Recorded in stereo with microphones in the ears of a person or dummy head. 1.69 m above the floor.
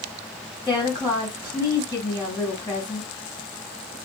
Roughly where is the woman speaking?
Centre.